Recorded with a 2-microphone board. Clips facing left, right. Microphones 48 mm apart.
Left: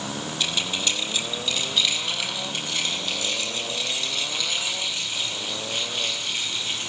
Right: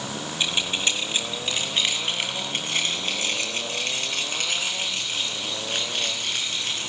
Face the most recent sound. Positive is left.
turn(degrees=-55)  # may be behind; listen again after turning